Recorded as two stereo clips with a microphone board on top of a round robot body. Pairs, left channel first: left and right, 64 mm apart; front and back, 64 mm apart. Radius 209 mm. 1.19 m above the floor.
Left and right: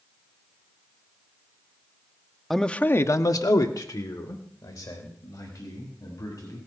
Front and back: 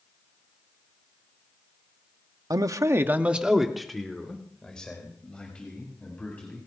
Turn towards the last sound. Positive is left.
turn(degrees=70)